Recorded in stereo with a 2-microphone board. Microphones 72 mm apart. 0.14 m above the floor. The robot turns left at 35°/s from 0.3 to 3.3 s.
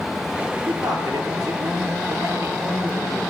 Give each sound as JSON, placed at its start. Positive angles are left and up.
{"t": 0.7, "sound": "a man speaking", "azimuth_deg": -65, "distance_m": 3.0}